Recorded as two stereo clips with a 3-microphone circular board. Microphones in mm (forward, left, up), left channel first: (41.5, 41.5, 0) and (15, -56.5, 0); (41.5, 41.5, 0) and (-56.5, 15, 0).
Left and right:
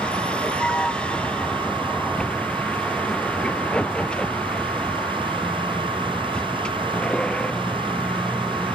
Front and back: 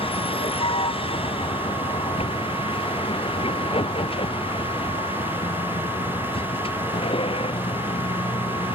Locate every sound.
0.0 s a vehicle: 5° right